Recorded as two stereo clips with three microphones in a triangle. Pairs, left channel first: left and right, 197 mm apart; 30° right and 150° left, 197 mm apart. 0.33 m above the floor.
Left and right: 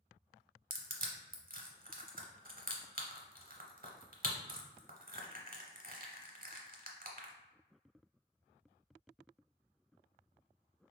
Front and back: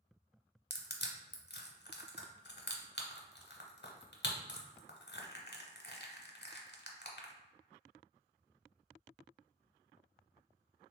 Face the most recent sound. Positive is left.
turn(degrees=-50)